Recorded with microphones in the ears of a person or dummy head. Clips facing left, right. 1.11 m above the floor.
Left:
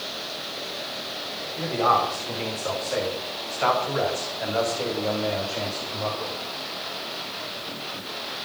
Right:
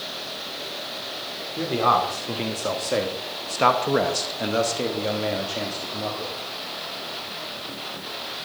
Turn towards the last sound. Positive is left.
turn(degrees=-5)  # may be behind; listen again after turning